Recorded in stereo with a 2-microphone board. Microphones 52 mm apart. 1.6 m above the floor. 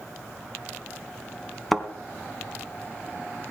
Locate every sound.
1.7 s a thud: 5° left (ahead or behind), 1.7 m